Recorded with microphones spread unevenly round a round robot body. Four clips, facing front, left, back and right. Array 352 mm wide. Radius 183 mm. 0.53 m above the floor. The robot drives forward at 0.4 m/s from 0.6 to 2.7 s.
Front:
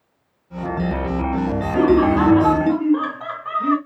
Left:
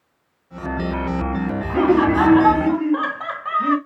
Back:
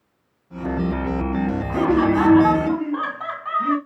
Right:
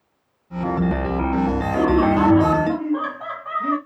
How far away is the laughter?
About 1.9 m.